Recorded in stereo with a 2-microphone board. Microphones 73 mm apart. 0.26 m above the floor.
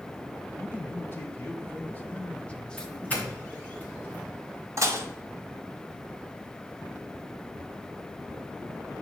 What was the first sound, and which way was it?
A man speaking, 35° left (ahead or behind).